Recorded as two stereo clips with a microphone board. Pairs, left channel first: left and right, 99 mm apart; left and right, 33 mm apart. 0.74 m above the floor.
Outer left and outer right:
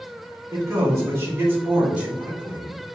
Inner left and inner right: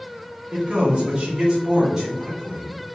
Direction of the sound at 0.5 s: 35° right (ahead or behind).